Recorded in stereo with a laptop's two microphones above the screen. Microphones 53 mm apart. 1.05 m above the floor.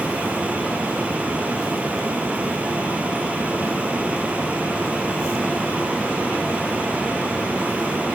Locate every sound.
0.0 s a fan: 30° right (ahead or behind)